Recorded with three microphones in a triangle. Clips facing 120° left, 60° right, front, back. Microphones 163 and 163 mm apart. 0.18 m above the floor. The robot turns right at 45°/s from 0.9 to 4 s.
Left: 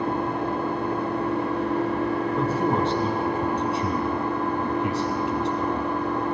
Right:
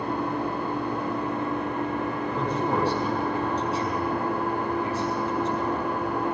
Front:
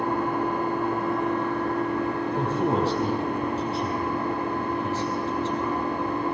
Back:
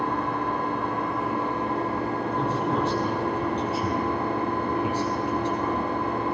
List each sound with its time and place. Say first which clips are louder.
0.0 s an engine running: left 2 dB, front 2 dB; 80° left, 6.5 m; by 6.3 s 140° right, 6.5 m
2.3 s a man speaking: left 1 dB, front 3 dB; 30° left, 6 m; by 5.8 s 105° left, 6 m